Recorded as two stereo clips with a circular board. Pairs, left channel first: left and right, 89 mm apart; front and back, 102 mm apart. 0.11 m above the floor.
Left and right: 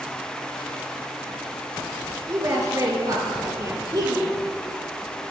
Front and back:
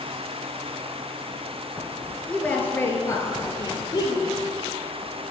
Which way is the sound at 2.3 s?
75° right.